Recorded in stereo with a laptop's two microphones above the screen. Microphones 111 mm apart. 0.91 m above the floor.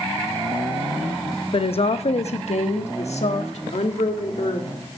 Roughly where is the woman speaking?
Left.